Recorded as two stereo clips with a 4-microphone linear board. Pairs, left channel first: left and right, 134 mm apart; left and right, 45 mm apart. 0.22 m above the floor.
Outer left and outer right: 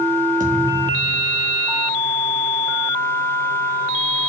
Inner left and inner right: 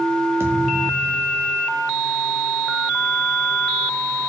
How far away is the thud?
About 4 m.